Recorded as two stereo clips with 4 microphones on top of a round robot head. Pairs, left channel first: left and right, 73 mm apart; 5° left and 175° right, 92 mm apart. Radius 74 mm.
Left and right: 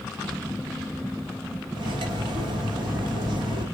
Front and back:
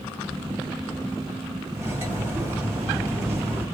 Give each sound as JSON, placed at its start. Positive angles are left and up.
{"t": 1.8, "sound": "cutlery clinking", "azimuth_deg": -105, "distance_m": 1.2}